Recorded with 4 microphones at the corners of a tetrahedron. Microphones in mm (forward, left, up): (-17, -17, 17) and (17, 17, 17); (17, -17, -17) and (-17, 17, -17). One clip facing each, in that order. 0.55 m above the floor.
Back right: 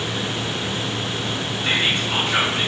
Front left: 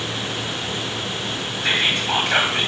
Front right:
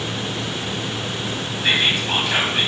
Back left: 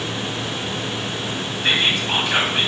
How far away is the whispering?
About 3 m.